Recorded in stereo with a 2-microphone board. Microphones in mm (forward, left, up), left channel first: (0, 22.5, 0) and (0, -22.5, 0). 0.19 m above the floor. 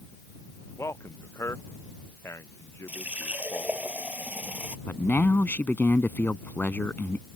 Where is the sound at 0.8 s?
80° left; by 3.9 s 70° left (ahead or behind).